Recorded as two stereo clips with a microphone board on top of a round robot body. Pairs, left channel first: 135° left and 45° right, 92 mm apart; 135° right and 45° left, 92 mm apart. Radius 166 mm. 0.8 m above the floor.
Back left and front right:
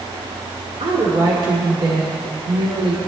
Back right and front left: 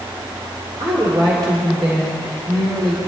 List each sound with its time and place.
0.8 s a woman speaking: 5° right, 3 m